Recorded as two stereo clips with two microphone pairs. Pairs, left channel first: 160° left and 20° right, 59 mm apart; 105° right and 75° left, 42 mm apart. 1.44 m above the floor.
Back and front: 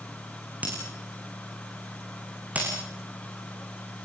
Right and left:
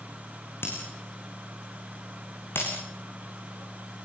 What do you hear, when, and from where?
0.6 s breaking glass: 85° right, 8.5 m